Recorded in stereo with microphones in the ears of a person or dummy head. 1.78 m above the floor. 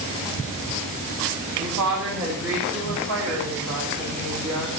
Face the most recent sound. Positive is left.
turn(degrees=-5)  # may be behind; listen again after turning